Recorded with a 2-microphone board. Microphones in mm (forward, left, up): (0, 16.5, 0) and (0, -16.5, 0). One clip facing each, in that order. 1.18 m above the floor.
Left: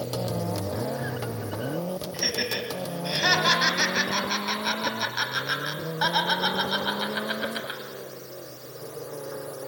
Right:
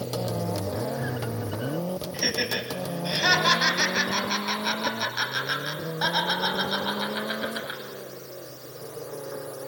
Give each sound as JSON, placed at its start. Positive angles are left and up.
{"t": 2.1, "sound": "laughter", "side_deg": -5, "distance_m": 8.5}